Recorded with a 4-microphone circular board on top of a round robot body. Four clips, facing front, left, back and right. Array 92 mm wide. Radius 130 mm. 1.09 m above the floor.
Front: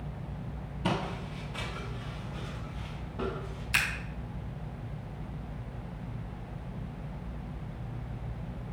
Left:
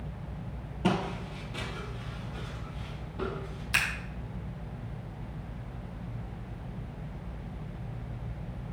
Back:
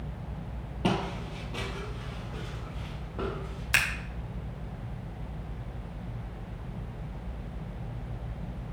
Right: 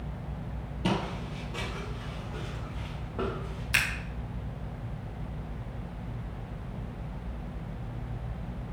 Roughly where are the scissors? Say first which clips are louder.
Right 1 dB, back 3 dB; behind.